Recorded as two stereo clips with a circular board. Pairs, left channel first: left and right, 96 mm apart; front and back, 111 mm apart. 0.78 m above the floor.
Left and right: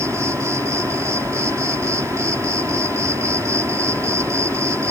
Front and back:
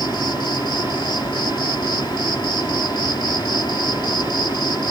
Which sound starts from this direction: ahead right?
An insect, at 0.0 s.